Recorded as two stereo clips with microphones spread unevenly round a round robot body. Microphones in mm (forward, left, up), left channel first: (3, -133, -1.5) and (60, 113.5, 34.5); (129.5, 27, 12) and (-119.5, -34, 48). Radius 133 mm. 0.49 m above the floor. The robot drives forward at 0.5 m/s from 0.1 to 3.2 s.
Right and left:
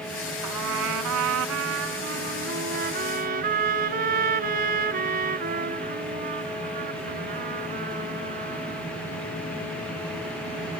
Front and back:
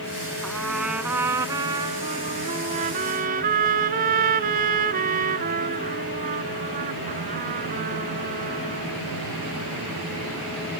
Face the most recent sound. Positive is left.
turn(degrees=135)